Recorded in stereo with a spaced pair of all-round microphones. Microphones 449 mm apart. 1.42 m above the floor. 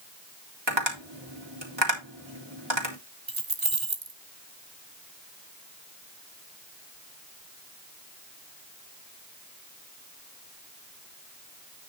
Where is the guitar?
No guitar in this recording.